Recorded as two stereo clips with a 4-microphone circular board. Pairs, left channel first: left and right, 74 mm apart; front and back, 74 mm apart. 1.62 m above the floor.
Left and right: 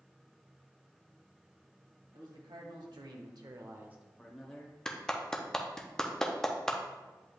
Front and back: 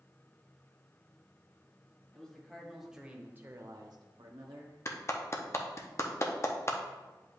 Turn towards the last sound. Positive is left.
turn(degrees=10)